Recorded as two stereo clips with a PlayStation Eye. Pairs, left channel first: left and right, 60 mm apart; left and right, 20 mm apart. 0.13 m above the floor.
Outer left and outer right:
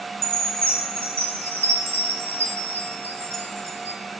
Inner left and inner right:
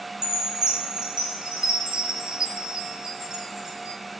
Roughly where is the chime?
Right.